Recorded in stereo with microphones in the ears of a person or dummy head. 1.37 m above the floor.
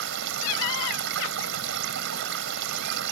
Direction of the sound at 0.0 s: 65° right (ahead or behind).